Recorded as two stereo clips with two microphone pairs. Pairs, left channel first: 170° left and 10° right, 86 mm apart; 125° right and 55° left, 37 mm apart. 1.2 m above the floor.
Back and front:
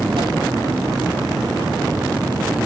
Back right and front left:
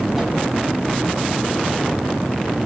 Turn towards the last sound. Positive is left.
turn(degrees=-25)